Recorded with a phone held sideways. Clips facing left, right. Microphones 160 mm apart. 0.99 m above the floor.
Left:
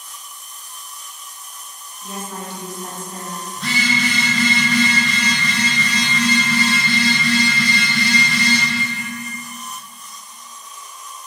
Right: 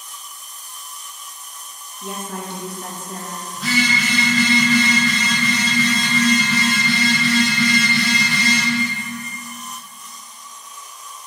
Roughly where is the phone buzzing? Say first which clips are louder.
Right 2 dB; centre.